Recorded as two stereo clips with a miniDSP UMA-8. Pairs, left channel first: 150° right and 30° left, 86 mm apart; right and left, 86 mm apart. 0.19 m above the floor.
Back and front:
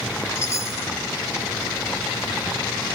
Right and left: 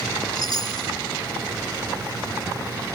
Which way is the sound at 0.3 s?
100° right.